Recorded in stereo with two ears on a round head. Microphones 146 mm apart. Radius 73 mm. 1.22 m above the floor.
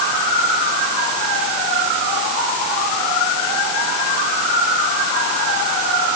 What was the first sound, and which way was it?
Only background noise.